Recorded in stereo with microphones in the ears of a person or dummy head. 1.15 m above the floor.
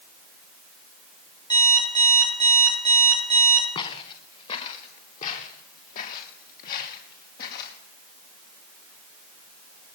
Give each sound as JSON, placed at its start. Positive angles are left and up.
{"t": 1.5, "sound": "an alarm clock", "side_deg": 25, "distance_m": 6.5}
{"t": 3.8, "sound": "footsteps", "side_deg": 30, "distance_m": 5.5}